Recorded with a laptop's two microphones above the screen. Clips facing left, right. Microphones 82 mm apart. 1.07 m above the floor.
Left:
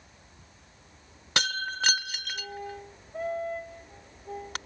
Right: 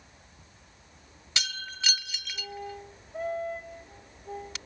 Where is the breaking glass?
50° left (ahead or behind).